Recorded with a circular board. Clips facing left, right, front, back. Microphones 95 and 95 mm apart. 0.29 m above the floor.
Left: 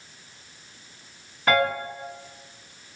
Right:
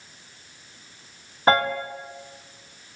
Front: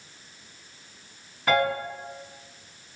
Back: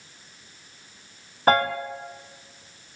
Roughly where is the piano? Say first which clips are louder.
Right 2 dB, back 3 dB; behind right.